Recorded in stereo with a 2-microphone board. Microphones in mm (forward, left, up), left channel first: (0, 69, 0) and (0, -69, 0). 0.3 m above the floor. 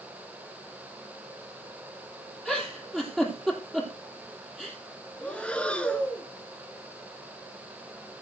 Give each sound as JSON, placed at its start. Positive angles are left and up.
{"t": 2.5, "sound": "a giggle", "side_deg": 5, "distance_m": 3.5}
{"t": 5.2, "sound": "breathing", "side_deg": 10, "distance_m": 1.0}